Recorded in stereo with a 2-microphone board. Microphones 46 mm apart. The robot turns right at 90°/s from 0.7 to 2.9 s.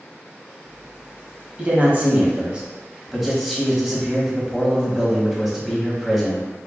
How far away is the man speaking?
About 1.2 m.